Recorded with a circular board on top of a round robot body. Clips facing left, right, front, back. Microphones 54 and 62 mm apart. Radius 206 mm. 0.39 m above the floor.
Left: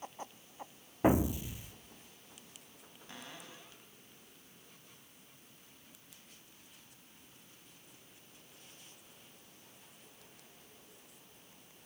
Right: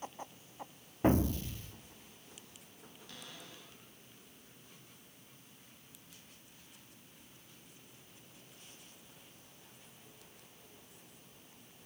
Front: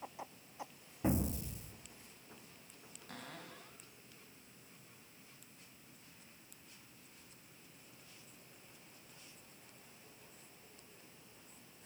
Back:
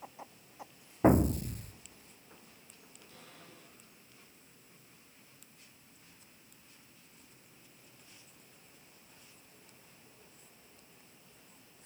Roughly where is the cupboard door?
Ahead left.